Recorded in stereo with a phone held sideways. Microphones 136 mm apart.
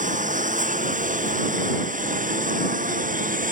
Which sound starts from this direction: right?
A lawn mower, at 0.0 s.